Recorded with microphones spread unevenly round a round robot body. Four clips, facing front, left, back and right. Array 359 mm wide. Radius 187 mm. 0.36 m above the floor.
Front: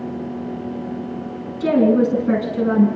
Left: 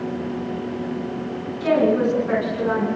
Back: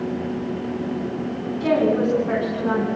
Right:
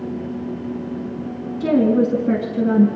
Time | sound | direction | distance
1.6 | a woman speaking | 55° right | 4.5 m